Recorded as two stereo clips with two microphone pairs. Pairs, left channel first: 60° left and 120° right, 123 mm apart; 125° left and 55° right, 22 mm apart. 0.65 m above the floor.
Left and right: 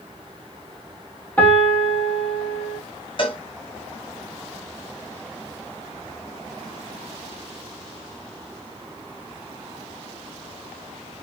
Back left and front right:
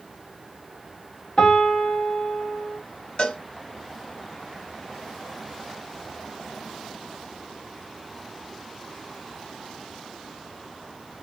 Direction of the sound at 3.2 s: 100° left.